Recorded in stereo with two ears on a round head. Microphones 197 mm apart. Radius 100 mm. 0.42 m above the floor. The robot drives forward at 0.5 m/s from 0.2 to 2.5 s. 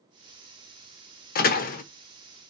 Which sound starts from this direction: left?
A door slam, at 1.4 s.